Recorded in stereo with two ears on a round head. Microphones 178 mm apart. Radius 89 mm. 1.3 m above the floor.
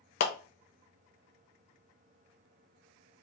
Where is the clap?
55° left (ahead or behind), 0.8 m.